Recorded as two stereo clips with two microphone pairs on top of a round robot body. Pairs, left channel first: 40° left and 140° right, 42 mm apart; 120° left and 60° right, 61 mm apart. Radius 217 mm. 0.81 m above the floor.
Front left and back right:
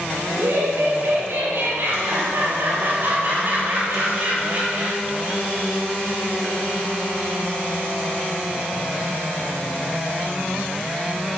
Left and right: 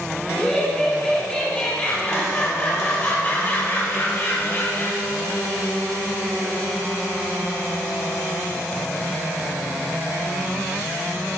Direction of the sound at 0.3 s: 160° right.